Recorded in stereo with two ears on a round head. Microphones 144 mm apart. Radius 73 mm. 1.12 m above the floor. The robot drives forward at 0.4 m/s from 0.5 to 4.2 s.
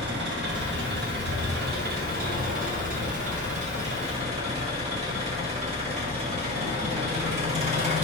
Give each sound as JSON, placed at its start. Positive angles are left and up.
{"t": 0.0, "sound": "an engine running", "side_deg": -85, "distance_m": 1.4}